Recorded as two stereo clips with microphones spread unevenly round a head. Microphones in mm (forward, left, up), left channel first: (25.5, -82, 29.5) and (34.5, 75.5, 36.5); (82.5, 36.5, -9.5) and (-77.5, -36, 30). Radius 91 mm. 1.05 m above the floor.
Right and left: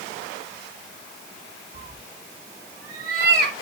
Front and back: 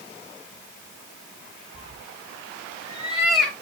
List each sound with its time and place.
1.7 s a cat meowing: 160° left, 1.5 m; by 3.5 s 120° left, 1.6 m